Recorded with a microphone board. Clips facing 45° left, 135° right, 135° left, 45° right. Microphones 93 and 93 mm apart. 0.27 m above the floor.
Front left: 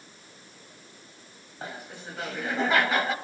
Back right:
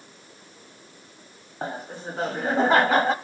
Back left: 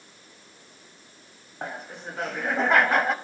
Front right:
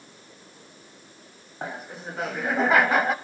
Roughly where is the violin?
I don't hear a violin.